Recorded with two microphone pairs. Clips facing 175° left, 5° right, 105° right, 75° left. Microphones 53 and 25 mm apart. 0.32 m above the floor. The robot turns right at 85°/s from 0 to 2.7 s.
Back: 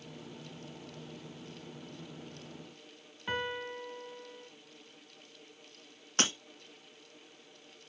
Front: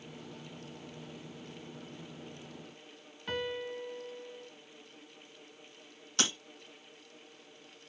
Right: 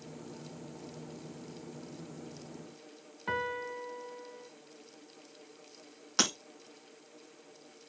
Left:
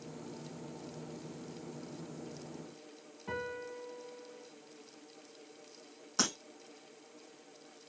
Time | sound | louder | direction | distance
3.3 | a piano | even, right 6 dB | 110° right | 1.6 m
6.2 | breaking glass | back 1 dB, right 4 dB | 135° right | 3.5 m